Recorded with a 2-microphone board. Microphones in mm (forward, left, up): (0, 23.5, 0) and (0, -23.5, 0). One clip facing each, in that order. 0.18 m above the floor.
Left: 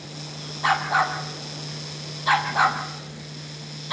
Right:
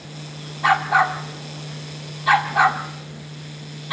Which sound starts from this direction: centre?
A dog barking, at 0.6 s.